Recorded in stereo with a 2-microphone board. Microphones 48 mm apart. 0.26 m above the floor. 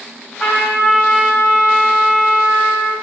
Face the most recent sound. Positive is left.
turn(degrees=25)  # may be behind; listen again after turning